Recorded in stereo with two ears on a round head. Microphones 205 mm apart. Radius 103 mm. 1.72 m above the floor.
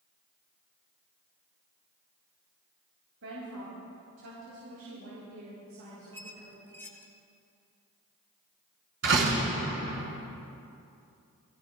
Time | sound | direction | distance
3.2 | a woman speaking | 70° right (ahead or behind) | 7 m
6.1 | a squeak | 10° left (ahead or behind) | 1.6 m
9.0 | a door slam | 55° right (ahead or behind) | 5.5 m